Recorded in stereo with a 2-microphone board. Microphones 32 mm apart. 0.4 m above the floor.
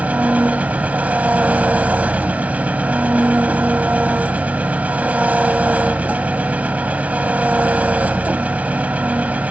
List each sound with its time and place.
0.0 s an engine running: 50° right (ahead or behind), 0.9 m